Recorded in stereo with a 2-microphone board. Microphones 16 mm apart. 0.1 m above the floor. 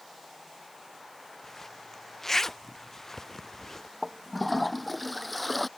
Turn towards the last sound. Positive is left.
turn(degrees=10)  # may be behind; listen again after turning